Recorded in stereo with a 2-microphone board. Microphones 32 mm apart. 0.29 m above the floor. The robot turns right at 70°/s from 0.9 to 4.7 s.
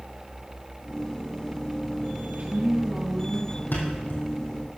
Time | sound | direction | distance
2.3 | a woman speaking | 60° right | 3.5 m
3.7 | a thud | 85° left | 3.5 m